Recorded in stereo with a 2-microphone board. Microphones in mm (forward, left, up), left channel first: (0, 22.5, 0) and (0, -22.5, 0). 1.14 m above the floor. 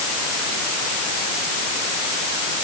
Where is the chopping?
I don't hear chopping.